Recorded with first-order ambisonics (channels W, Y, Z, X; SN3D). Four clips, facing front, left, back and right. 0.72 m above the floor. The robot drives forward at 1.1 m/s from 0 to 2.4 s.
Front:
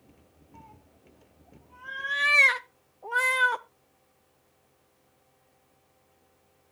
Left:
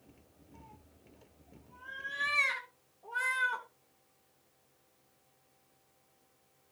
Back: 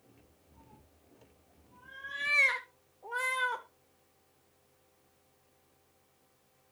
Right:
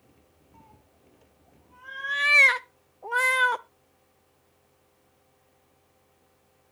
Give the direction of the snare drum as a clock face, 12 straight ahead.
I don't hear a snare drum.